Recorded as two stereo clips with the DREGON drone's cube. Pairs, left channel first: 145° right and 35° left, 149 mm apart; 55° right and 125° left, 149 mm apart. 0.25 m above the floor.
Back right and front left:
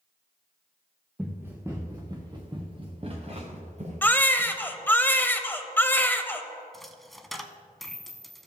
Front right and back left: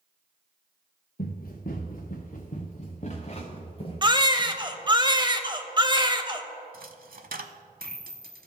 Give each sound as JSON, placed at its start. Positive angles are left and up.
{"t": 1.2, "sound": "running footsteps", "azimuth_deg": -45, "distance_m": 1.8}
{"t": 4.0, "sound": "a baby crying", "azimuth_deg": 150, "distance_m": 0.6}
{"t": 6.7, "sound": "a dropped coin", "azimuth_deg": 125, "distance_m": 0.7}